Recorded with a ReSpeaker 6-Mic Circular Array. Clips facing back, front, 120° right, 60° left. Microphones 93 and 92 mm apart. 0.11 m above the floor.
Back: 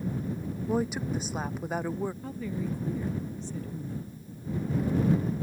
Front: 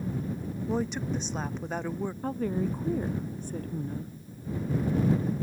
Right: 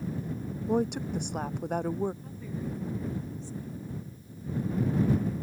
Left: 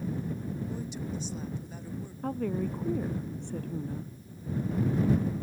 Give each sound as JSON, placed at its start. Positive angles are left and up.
{"t": 0.7, "sound": "a woman speaking", "azimuth_deg": -100}
{"t": 2.2, "sound": "a woman speaking", "azimuth_deg": 35}